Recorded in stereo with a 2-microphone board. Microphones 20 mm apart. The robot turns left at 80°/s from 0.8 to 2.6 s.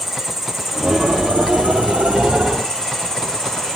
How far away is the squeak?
No squeak in this recording.